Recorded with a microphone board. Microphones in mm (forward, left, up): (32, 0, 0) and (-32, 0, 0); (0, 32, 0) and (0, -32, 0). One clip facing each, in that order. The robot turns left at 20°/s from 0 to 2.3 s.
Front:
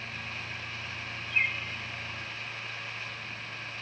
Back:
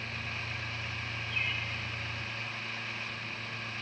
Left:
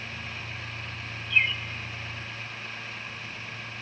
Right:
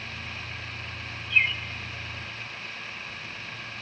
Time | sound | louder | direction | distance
1.3 | a bird | front 6 dB, right 1 dB | 10° right | 1.5 m